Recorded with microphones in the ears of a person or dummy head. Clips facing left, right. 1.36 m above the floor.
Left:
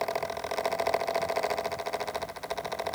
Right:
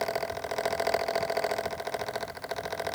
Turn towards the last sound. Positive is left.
No sound to turn to.